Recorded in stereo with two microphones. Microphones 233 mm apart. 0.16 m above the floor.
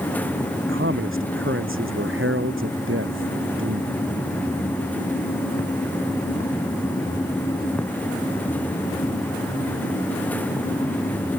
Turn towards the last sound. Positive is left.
turn(degrees=-55)  # may be behind; listen again after turning